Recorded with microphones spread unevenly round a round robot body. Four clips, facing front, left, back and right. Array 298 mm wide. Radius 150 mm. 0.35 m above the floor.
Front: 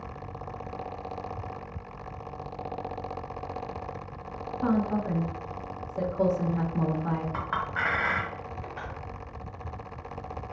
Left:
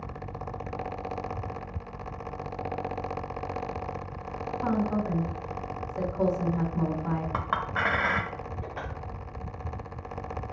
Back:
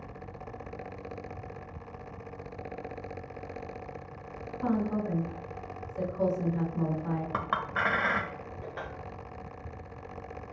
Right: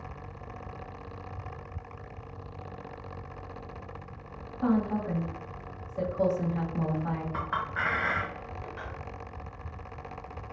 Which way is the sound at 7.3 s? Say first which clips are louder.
Left 3 dB, even; 130° left.